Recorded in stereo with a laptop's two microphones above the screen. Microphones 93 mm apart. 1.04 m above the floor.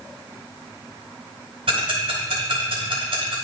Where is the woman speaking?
I don't hear a woman speaking.